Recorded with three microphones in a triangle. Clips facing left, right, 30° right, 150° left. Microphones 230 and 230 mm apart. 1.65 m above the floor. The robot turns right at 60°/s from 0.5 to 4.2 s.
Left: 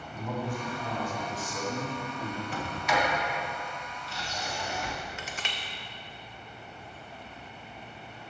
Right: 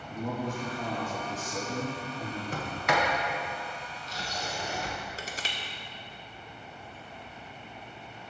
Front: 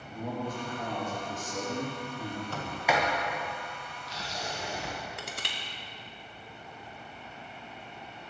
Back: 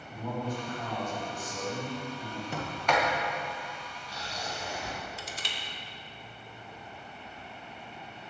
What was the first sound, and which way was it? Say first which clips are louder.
A man speaking: right 1 dB, even; 95° right.